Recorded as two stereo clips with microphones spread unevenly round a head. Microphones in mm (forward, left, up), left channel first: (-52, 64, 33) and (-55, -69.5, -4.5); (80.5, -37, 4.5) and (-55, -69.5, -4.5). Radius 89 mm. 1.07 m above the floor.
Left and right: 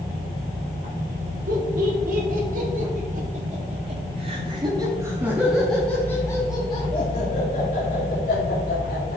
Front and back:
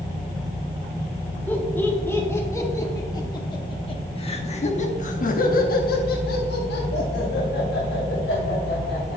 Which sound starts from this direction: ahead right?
Laughter, at 1.5 s.